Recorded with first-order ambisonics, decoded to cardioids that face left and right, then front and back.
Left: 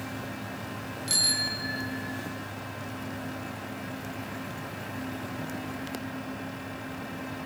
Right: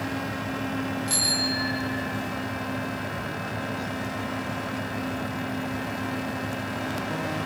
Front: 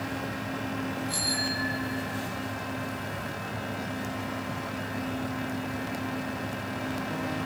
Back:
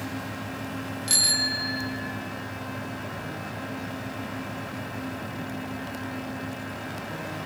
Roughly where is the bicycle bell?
Behind.